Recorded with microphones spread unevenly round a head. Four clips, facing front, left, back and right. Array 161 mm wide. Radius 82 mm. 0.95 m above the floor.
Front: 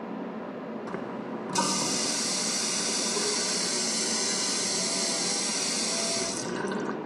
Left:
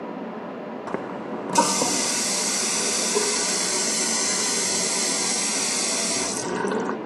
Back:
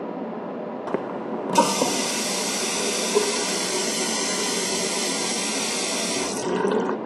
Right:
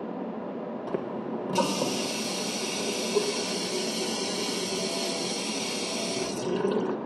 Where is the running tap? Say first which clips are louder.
Left 2 dB, back 10 dB; 165° left, 0.5 m.